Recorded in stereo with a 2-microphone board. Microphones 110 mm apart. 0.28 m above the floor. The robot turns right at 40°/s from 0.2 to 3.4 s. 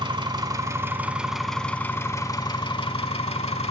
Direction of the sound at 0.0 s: 50° right.